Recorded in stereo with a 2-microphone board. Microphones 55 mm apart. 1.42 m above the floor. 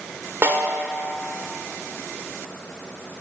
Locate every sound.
0.4 s a snare drum: 45° right (ahead or behind), 1.9 m